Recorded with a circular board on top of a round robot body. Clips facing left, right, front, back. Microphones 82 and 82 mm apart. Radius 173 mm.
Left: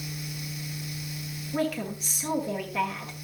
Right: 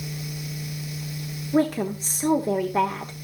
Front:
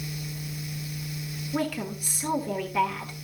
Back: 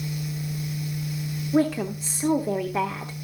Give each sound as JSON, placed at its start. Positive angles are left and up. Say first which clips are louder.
{"t": 1.5, "sound": "a woman speaking", "louder": "right 7 dB, back 7 dB", "azimuth_deg": -125, "distance_m": 1.2}